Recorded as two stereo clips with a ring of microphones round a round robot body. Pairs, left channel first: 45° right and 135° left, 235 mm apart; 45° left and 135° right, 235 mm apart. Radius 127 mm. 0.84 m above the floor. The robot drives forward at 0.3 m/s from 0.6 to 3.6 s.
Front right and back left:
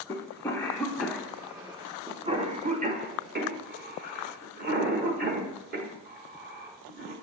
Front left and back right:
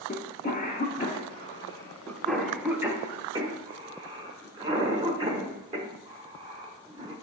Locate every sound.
0.1 s a cough: 30° left, 0.7 m; by 7.1 s 160° left, 0.8 m